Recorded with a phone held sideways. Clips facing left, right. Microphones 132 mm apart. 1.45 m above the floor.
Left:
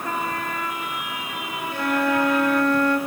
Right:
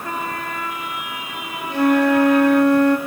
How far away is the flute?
About 3 m.